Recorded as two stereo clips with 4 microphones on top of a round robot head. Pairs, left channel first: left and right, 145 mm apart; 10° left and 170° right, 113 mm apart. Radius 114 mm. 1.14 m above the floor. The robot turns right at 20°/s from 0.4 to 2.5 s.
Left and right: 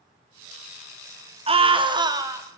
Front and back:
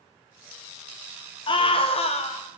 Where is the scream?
40° right, 1.7 m; by 2.5 s 20° right, 1.7 m.